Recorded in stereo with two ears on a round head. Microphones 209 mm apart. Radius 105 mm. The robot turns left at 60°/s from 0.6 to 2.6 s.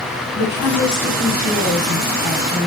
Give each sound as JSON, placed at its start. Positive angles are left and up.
{"t": 0.3, "sound": "a woman speaking", "azimuth_deg": 115, "distance_m": 2.0}